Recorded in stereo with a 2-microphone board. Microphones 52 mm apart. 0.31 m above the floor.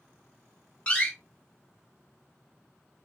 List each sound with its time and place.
0.9 s a door slam: 20° left (ahead or behind), 1.5 m